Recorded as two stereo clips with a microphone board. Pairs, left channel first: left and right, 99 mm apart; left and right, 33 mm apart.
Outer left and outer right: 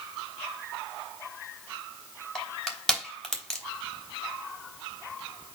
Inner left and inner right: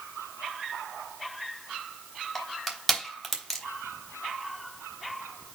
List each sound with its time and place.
2.4 s crushing: 5° left (ahead or behind), 3 m